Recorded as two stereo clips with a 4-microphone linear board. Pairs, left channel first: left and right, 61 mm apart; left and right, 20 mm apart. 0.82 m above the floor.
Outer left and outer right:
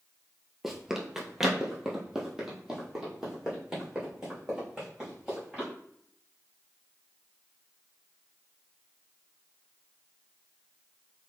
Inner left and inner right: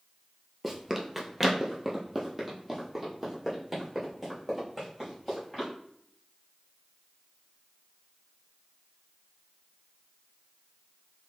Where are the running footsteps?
5° right (ahead or behind), 0.9 m.